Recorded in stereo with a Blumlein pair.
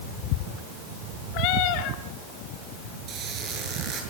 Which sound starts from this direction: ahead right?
A squeak, at 3.1 s.